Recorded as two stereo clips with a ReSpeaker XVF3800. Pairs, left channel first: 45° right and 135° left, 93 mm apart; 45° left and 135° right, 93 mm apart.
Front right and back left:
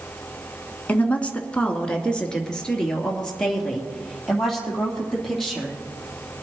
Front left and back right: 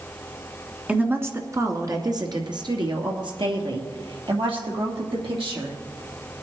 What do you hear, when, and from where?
0.9 s a woman speaking: 85° right, 1.2 m; by 5.8 s 130° right, 4.5 m